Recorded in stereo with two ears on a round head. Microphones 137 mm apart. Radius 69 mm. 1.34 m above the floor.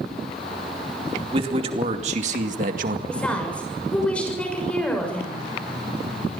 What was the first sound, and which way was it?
A man speaking, 35° right (ahead or behind).